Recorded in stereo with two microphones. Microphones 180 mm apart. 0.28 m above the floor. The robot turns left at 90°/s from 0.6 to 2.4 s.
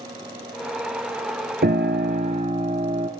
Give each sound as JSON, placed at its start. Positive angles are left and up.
{"t": 1.6, "sound": "a piano", "azimuth_deg": -65, "distance_m": 1.0}